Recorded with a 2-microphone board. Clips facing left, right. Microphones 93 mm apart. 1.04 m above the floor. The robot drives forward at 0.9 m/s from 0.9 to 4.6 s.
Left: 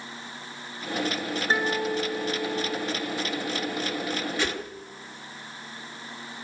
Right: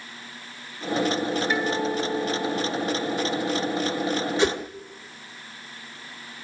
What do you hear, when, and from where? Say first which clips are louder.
1.5 s a guitar: right 1 dB; 35° left (ahead or behind), 3 m; by 4.2 s 20° left (ahead or behind), 5 m
4.4 s a whoosh: right 8 dB; 25° right (ahead or behind), 1.1 m; by 4.6 s 20° right (ahead or behind), 1.3 m